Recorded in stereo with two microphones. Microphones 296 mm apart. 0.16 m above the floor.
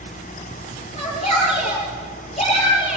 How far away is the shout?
About 5 m.